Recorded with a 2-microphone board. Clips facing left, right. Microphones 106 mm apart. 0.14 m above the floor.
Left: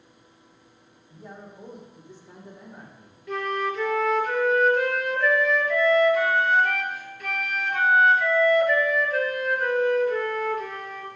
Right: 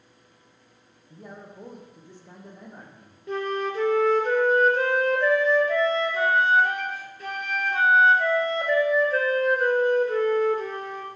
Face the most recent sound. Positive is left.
turn(degrees=-30)  # may be behind; listen again after turning